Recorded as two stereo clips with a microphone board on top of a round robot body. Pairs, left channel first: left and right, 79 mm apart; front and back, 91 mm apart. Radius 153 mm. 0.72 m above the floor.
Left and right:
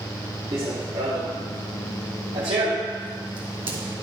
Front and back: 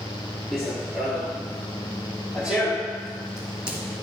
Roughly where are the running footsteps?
Right.